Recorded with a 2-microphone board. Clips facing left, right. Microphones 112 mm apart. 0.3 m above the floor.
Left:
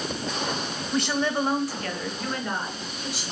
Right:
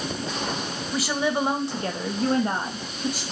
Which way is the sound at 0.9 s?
Centre (ahead or behind).